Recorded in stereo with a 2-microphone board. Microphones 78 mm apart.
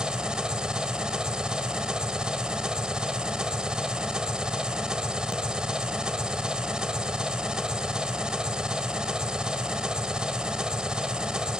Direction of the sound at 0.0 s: 10° right (ahead or behind).